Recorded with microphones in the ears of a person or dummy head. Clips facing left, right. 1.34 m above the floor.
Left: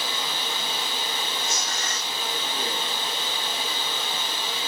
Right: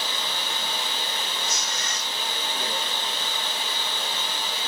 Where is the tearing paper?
35° left (ahead or behind), 1.8 m.